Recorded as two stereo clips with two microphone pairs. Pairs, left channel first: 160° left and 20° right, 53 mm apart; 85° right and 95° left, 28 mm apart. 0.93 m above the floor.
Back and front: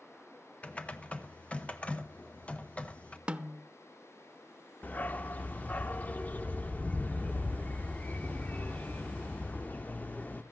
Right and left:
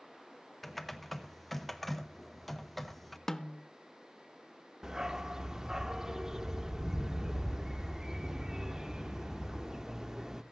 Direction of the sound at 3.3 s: 45° right.